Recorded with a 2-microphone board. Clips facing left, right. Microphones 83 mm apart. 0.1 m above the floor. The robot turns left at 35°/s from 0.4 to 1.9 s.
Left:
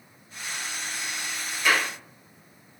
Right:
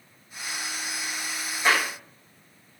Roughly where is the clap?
Right.